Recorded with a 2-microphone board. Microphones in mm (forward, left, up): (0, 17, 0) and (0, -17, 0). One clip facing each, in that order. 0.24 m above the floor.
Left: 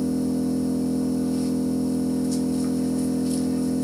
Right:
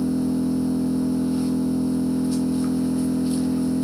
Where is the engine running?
25° right (ahead or behind), 1.1 m.